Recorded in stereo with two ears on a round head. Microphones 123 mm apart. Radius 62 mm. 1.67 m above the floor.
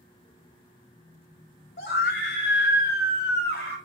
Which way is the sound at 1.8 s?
75° left (ahead or behind).